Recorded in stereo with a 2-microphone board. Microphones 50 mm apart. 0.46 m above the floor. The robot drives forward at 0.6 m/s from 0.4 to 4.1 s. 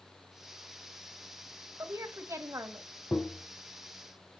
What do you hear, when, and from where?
1.8 s a woman speaking: 70° right (ahead or behind), 2 m; by 2.9 s 65° right (ahead or behind), 2 m
3.1 s tapping: 40° left (ahead or behind), 0.7 m; by 3.5 s 30° left (ahead or behind), 0.9 m